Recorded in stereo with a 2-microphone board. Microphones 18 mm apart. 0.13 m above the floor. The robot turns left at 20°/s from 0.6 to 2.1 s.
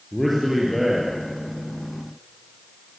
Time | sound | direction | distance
0.1 | a man speaking | 5° left (ahead or behind) | 3 m